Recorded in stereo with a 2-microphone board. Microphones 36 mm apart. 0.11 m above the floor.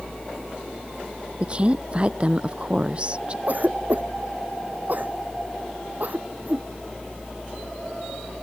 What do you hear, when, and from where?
1.4 s a woman speaking: 30° right (ahead or behind)
3.5 s a cough: 50° right (ahead or behind)